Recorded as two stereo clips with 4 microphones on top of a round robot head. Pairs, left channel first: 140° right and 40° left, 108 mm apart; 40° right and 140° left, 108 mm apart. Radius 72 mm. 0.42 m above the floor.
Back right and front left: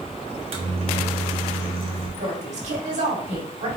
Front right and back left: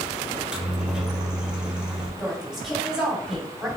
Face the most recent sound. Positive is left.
turn(degrees=50)